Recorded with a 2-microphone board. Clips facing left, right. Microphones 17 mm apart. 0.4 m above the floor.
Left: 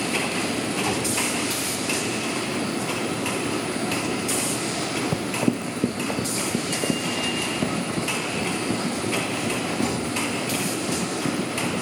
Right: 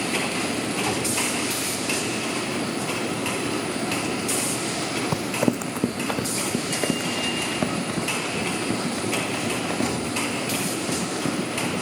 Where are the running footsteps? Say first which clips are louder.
Right 2 dB; 70° right (ahead or behind), 1.0 m; by 11.7 s 80° right, 10.5 m.